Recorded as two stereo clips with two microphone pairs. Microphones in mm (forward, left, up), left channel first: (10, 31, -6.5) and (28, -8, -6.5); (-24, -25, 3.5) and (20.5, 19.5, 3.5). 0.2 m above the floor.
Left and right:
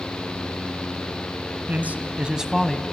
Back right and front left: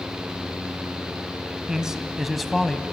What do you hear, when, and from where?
1.7 s a man speaking: 35° right, 1.7 m; by 2.8 s 160° left, 1.0 m